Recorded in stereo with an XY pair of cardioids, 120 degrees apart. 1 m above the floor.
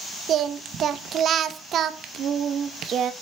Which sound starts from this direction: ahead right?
Singing, at 0.3 s.